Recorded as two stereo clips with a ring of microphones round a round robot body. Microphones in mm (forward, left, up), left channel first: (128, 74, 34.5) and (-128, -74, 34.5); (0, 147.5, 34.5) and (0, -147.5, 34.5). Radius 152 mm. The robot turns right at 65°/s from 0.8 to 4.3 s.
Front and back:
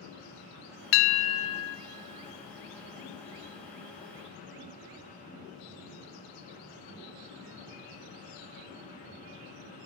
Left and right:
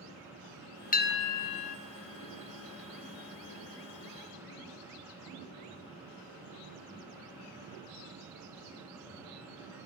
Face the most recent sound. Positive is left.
turn(degrees=-115)